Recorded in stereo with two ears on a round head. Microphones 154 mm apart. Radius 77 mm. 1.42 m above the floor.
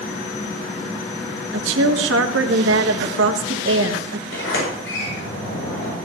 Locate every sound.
1.5 s a woman speaking: 80° right, 1.6 m
4.3 s a sliding door: 85° left, 8 m